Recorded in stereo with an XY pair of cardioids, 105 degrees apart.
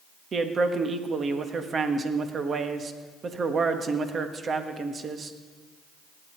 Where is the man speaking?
45° right, 1.3 m.